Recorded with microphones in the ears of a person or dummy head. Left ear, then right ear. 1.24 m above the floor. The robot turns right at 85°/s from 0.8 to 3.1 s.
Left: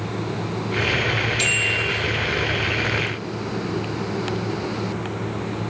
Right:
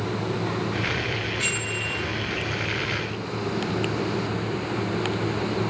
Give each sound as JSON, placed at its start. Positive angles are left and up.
{"t": 1.4, "sound": "a bicycle bell", "azimuth_deg": 80, "distance_m": 7.5}